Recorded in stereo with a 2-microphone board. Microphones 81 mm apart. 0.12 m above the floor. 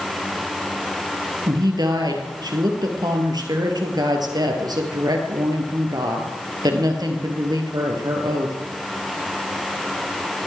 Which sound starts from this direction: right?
A woman speaking, at 1.5 s.